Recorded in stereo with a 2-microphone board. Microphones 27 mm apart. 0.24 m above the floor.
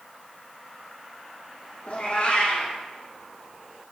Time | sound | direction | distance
1.9 | a cat meowing | 45° left (ahead or behind) | 2.5 m